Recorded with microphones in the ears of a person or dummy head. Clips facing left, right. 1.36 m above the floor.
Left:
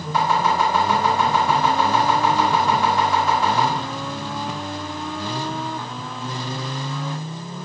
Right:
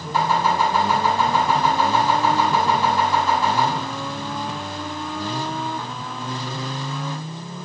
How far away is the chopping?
About 1.4 m.